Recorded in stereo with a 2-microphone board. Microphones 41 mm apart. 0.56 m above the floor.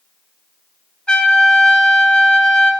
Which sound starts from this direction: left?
A trumpet, at 1.1 s.